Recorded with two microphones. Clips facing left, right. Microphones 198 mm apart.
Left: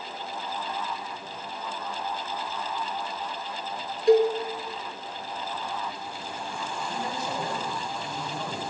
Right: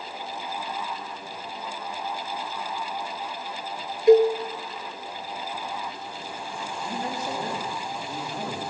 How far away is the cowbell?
About 0.8 m.